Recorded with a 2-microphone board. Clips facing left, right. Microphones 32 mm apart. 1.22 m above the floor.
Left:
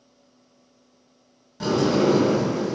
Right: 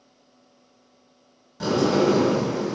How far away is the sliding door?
About 0.9 m.